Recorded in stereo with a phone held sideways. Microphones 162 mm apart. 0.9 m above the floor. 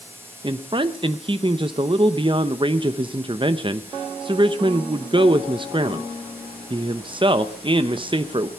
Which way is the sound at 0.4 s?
30° right (ahead or behind).